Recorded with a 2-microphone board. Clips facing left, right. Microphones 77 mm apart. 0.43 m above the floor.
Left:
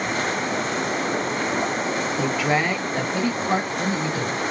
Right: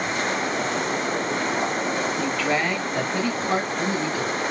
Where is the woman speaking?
10° left (ahead or behind), 0.8 m; by 4.4 s 15° left (ahead or behind), 2.5 m.